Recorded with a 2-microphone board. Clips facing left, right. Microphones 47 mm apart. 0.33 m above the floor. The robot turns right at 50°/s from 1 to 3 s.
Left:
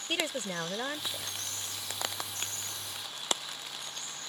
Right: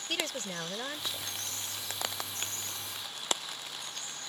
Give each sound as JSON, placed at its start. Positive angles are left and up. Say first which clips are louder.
{"t": 0.1, "sound": "a woman speaking", "louder": "left 3 dB", "side_deg": 15}